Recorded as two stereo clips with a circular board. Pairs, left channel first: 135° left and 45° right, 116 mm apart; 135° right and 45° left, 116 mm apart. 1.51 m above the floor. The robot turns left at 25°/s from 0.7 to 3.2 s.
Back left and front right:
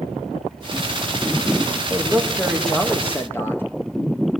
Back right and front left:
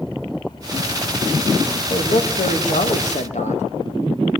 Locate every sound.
1.9 s a man speaking: 120° right, 2.5 m; by 3.6 s 155° right, 2.5 m